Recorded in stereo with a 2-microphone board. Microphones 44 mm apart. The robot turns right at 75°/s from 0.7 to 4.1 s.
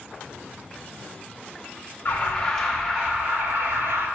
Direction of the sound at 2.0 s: 135° left.